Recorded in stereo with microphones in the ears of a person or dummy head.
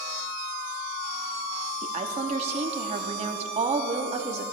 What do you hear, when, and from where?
1.8 s a woman speaking: 35° right (ahead or behind), 0.9 m